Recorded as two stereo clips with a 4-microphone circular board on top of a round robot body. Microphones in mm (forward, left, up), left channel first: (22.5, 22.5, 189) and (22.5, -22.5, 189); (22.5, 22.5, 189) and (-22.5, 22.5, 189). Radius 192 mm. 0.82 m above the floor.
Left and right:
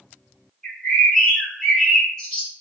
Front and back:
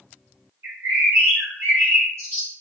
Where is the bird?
170° left, 0.8 m.